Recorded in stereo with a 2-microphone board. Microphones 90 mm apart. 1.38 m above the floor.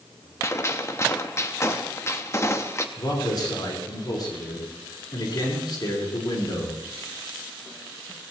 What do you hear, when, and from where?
0.4 s a gunshot: 30° left (ahead or behind), 0.9 m
3.0 s a man speaking: 50° left (ahead or behind), 5 m